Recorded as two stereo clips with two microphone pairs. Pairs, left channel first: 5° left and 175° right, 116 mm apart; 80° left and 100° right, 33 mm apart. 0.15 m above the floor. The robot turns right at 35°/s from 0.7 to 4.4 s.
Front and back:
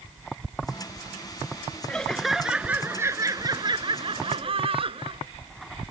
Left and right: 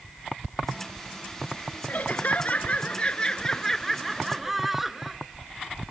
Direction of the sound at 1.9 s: 85° left.